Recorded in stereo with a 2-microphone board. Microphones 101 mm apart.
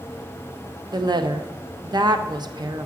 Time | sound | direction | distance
0.9 | a woman speaking | 45° right (ahead or behind) | 0.7 m